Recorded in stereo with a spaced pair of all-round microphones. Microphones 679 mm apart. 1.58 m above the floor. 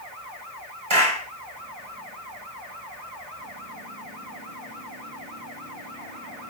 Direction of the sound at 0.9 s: 45° right (ahead or behind).